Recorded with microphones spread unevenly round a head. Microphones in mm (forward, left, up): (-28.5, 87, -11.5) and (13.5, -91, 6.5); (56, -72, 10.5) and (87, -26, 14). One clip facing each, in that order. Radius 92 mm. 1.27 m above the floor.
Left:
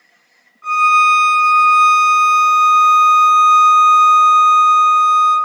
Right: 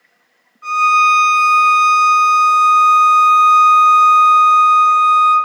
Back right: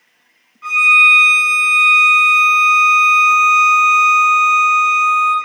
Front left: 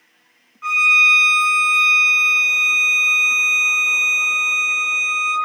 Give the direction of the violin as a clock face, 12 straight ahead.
12 o'clock.